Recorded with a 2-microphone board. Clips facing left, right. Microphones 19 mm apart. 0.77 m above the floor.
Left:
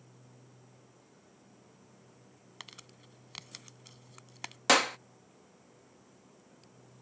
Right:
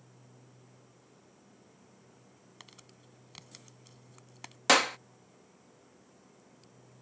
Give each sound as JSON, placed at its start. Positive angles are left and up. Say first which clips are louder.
{"t": 2.6, "sound": "crumpling", "louder": "left 6 dB", "side_deg": 30}
{"t": 4.7, "sound": "a clap", "louder": "right 1 dB", "side_deg": -10}